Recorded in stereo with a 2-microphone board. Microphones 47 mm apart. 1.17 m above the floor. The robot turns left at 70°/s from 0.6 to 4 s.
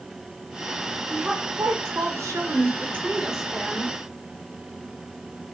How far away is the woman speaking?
About 1.0 m.